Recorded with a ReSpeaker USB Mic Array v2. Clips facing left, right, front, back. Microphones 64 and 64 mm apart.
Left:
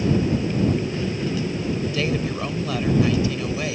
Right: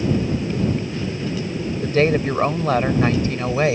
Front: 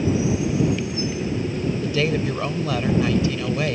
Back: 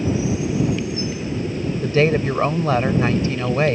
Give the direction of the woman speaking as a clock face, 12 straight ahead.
4 o'clock.